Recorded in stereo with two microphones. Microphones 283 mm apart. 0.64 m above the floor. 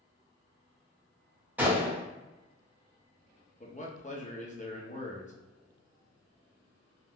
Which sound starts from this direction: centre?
A gunshot, at 1.6 s.